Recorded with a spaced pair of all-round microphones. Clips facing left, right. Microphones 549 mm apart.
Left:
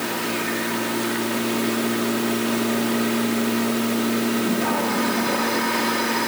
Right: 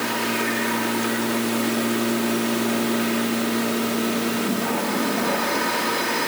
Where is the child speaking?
I don't hear a child speaking.